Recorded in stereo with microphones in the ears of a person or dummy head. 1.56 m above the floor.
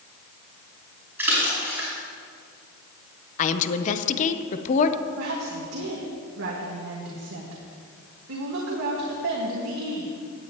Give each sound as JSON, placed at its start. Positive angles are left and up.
{"t": 1.2, "sound": "a splash", "side_deg": -10, "distance_m": 4.5}
{"t": 3.4, "sound": "a woman speaking", "side_deg": 40, "distance_m": 0.7}
{"t": 5.2, "sound": "a woman speaking", "side_deg": -70, "distance_m": 1.7}